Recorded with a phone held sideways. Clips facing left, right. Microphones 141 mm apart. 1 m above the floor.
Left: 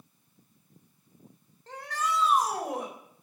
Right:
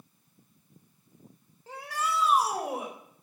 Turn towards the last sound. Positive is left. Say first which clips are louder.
# left 1 dB
turn(degrees=-10)  # may be behind; listen again after turning